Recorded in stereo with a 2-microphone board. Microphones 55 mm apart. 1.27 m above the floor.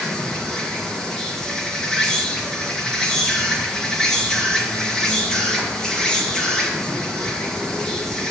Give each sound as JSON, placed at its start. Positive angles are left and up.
{"t": 0.0, "sound": "an insect", "side_deg": 15, "distance_m": 1.7}